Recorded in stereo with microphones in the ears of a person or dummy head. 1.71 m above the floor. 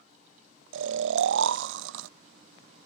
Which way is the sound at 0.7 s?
75° right (ahead or behind).